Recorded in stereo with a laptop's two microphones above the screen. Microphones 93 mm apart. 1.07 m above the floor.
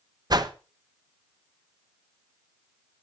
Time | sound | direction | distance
0.3 | a whoosh | 45° right (ahead or behind) | 1.0 m